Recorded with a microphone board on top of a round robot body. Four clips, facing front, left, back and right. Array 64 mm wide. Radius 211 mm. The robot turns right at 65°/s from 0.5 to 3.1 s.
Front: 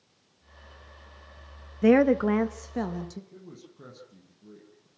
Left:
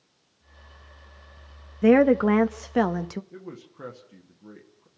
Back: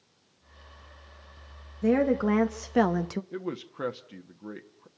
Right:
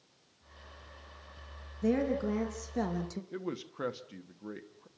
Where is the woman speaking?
60° left, 1.0 m; by 3.2 s 140° left, 1.0 m.